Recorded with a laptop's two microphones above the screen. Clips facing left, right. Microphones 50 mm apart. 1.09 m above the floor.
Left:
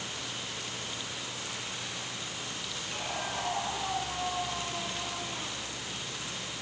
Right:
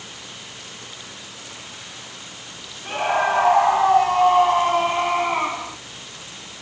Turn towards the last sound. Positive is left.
turn(degrees=-70)  # may be behind; listen again after turning